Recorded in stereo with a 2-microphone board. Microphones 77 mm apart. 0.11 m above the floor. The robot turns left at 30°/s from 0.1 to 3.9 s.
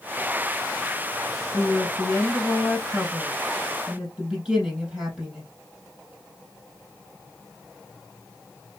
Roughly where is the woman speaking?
Ahead left.